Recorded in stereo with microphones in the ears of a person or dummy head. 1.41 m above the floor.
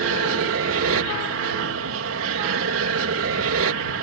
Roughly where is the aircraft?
Right.